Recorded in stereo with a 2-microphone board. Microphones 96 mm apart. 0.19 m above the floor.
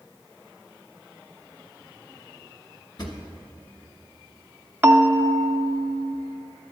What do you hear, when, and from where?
3.0 s a drawer: 50° left (ahead or behind), 1.2 m
4.8 s a bell: 20° right (ahead or behind), 0.5 m